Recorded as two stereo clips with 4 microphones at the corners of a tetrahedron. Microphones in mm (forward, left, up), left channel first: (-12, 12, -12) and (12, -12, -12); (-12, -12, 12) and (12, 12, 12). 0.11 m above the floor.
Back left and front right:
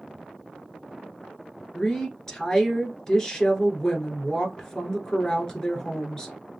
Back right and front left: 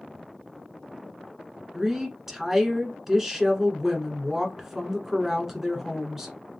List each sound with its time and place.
1.7 s a woman speaking: 105° left, 1.2 m